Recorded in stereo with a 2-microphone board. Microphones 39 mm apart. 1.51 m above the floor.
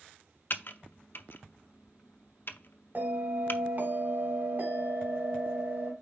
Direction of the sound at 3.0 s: 55° right (ahead or behind).